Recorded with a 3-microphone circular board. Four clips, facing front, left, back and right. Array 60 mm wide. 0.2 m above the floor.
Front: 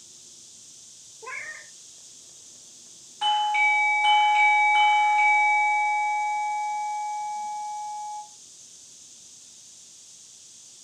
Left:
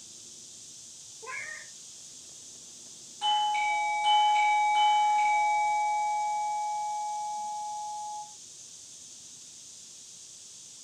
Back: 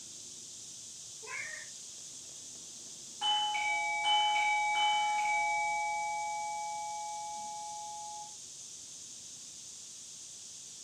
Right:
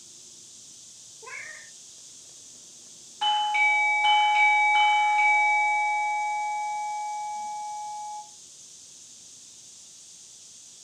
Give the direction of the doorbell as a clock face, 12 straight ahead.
2 o'clock.